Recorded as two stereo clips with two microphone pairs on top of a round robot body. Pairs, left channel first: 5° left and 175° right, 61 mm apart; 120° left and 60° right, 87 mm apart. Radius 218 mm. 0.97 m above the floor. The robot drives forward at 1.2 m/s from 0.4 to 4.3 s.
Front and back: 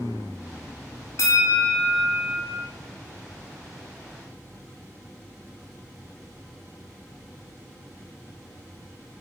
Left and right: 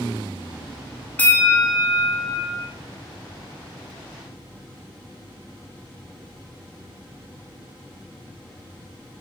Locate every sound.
1.2 s a bell: 50° left, 1.5 m; by 2.7 s 125° left, 1.4 m